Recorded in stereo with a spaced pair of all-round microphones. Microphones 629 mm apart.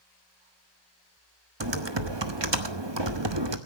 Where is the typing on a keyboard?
45° right (ahead or behind), 1.3 m.